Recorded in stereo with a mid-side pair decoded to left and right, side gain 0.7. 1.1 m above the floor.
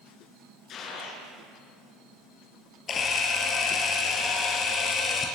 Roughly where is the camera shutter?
Ahead left.